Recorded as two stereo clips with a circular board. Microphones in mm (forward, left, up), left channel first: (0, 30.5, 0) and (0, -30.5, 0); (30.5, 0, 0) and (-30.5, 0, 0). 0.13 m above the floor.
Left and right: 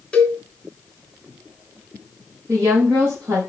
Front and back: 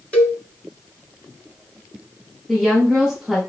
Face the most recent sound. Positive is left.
turn(degrees=-85)